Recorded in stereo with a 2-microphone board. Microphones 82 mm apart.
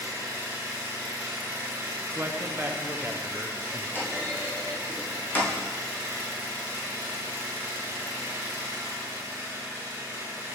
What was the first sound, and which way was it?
An engine running, 20° right (ahead or behind).